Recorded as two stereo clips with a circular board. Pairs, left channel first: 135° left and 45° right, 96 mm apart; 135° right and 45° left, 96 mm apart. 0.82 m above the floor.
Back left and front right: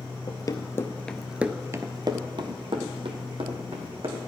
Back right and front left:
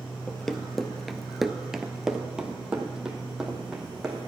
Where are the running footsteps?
140° left, 1.1 m; by 4.2 s 35° right, 2.5 m.